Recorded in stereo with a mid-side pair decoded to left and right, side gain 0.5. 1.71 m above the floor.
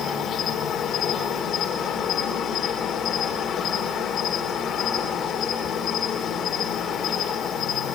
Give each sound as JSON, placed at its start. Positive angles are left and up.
{"t": 0.0, "sound": "an insect", "azimuth_deg": 65, "distance_m": 4.0}